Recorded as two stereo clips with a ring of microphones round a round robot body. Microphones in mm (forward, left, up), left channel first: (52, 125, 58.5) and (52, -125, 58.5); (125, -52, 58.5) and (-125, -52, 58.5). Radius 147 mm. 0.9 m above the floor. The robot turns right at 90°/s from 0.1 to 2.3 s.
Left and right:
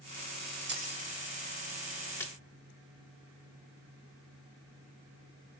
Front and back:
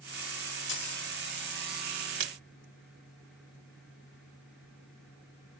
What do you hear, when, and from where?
0.7 s keys jangling: 45° right, 2 m; by 1.0 s 15° right, 2 m
2.2 s a splash: 170° left, 0.7 m; by 2.4 s straight behind, 0.7 m